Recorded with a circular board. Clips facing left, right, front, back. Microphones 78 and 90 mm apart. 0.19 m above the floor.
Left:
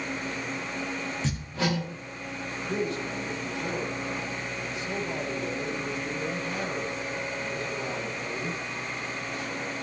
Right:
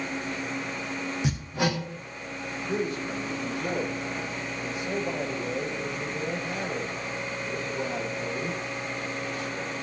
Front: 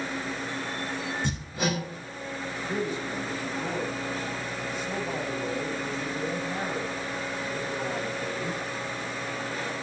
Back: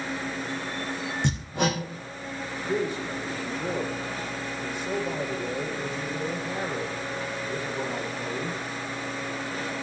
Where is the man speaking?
165° right, 7 m.